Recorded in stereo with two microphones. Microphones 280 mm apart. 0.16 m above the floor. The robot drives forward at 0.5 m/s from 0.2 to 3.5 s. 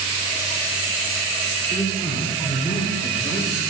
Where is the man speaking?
5° right (ahead or behind), 4 m.